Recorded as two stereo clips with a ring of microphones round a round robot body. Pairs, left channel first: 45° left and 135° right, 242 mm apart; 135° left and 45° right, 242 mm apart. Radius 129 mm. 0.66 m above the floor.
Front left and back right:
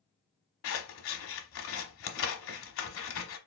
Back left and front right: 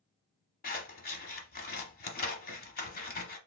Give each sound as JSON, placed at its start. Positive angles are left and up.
{"t": 0.6, "sound": "scissors", "azimuth_deg": 80, "distance_m": 1.0}